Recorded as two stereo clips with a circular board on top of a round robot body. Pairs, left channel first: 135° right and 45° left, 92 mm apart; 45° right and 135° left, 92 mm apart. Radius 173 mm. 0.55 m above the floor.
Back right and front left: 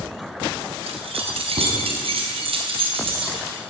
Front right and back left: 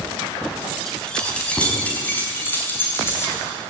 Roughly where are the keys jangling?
Ahead left.